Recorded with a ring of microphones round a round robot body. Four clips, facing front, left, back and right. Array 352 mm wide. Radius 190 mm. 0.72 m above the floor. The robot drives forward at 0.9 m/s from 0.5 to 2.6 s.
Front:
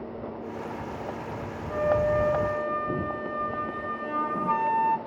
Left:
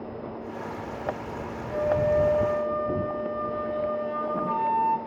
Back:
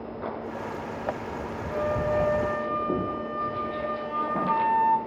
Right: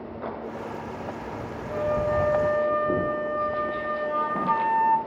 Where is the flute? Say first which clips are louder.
Left 1 dB, front 3 dB; 60° right, 2.5 m; by 5.0 s 80° right, 2.5 m.